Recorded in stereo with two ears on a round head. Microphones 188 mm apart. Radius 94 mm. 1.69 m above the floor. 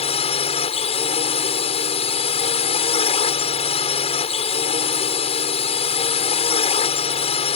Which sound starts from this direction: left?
A drone, at 0.0 s.